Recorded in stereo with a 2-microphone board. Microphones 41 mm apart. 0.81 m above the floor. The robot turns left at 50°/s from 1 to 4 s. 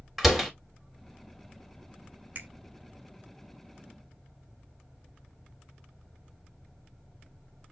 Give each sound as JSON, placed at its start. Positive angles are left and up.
{"t": 0.2, "sound": "a door slam", "side_deg": -5, "distance_m": 1.5}
{"t": 2.4, "sound": "a finger snap", "side_deg": -55, "distance_m": 2.5}